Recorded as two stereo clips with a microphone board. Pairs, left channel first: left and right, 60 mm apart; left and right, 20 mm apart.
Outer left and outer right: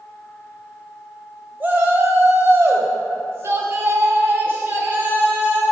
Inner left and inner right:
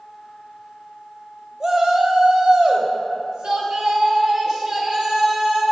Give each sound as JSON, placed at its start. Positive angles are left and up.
{"t": 1.6, "sound": "a shout", "side_deg": -30, "distance_m": 1.2}